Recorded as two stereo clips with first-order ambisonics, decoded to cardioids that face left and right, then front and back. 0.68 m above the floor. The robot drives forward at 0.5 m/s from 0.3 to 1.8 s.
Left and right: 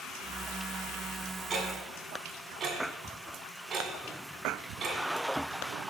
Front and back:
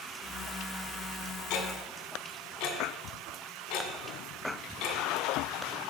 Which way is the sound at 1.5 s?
15° right.